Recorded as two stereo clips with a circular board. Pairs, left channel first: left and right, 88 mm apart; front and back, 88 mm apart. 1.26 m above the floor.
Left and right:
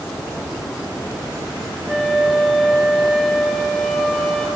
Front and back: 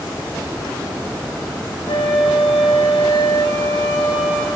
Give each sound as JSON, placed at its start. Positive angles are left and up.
{"t": 1.9, "sound": "a flute", "azimuth_deg": -5, "distance_m": 3.5}